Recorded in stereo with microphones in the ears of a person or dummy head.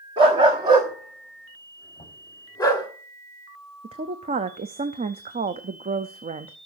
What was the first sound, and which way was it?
A dog barking, 30° right (ahead or behind).